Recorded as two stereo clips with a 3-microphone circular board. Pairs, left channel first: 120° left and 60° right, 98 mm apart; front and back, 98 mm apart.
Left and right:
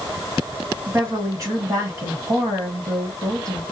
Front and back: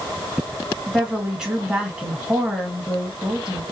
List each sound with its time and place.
0.9 s a woman speaking: 100° right, 2.0 m